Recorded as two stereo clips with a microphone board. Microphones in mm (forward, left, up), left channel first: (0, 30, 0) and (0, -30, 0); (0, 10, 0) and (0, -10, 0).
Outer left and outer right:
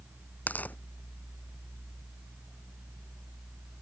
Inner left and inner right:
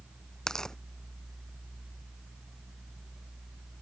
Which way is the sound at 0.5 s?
30° left (ahead or behind).